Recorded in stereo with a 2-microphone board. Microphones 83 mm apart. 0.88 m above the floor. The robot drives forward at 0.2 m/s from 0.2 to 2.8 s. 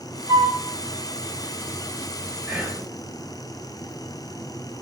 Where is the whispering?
5° right (ahead or behind), 1.5 m.